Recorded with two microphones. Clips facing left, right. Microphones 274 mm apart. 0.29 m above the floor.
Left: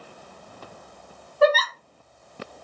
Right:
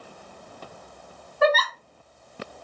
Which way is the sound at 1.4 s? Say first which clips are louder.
Left 3 dB; 35° left (ahead or behind).